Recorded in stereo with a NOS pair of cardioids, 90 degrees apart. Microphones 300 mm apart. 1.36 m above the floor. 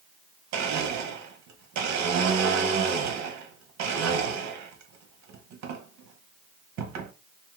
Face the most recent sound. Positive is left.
turn(degrees=-65)